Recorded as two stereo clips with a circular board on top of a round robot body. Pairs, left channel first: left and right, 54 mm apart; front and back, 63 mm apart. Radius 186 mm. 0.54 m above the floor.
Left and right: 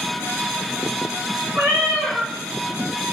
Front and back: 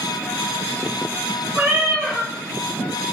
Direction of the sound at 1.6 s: 120° right.